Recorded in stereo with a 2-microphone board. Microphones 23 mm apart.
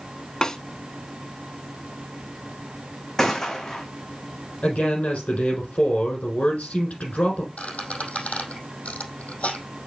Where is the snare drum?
30° left (ahead or behind), 1.0 m.